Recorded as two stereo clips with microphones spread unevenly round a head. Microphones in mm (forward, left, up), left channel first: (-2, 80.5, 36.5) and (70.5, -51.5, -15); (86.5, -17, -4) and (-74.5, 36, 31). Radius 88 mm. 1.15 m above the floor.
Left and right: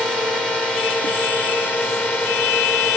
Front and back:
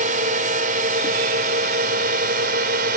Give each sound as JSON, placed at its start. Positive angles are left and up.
{"t": 0.0, "sound": "a drone", "azimuth_deg": -150}